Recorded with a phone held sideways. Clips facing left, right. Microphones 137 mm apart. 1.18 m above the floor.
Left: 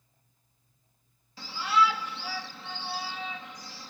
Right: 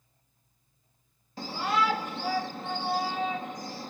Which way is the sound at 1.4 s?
50° right (ahead or behind).